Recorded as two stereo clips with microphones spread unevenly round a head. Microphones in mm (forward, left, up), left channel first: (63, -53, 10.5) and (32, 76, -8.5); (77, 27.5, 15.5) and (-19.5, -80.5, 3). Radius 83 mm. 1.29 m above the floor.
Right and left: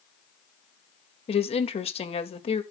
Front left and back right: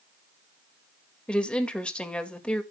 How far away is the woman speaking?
About 1.9 m.